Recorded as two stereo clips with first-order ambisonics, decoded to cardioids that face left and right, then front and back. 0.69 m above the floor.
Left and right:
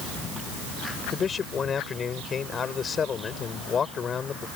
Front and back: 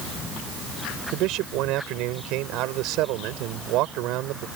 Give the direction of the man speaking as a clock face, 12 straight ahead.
7 o'clock.